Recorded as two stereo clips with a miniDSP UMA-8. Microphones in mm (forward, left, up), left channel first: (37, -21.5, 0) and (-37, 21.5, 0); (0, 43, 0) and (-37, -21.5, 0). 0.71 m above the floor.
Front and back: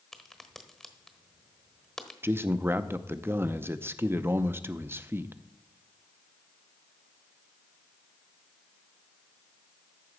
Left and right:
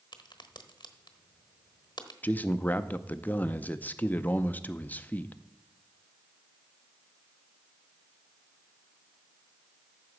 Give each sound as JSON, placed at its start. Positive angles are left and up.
{"t": 0.1, "sound": "a crack", "azimuth_deg": 55, "distance_m": 1.1}
{"t": 2.2, "sound": "a man speaking", "azimuth_deg": 110, "distance_m": 0.6}